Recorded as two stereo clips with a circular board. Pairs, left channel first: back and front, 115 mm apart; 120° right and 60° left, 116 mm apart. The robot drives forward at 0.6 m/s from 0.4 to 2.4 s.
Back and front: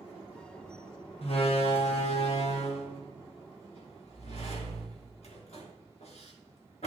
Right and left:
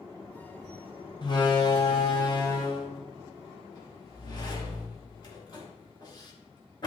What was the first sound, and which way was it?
A door slam, 165° right.